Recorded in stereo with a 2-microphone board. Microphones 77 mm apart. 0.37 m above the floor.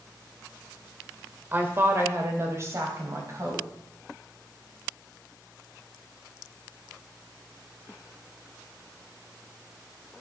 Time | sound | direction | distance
1.5 | a woman speaking | 30° right (ahead or behind) | 1.5 m